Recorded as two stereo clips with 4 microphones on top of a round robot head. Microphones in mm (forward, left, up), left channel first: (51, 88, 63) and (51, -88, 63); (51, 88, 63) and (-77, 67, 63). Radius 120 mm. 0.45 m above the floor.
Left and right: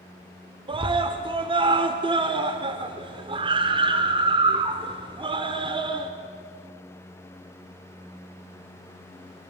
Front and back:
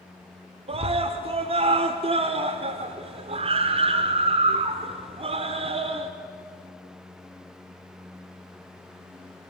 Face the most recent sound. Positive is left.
turn(degrees=-145)